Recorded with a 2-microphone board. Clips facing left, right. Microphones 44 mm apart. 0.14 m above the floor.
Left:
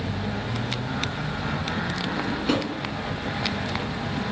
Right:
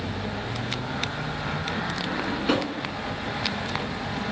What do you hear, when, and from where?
2.0 s a drawer: 10° right (ahead or behind), 0.8 m